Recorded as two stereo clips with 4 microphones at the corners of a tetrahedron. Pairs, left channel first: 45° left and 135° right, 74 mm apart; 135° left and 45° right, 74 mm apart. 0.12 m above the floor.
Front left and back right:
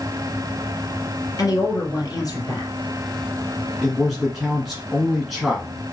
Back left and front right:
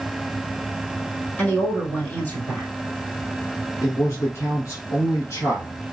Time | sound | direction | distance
1.4 | a woman speaking | 70° left | 2.5 m
3.8 | a man speaking | 135° left | 1.5 m